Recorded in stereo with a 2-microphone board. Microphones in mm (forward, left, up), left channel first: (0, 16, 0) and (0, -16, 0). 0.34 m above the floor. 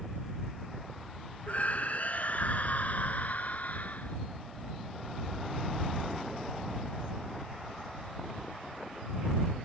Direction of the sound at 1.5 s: 50° left (ahead or behind).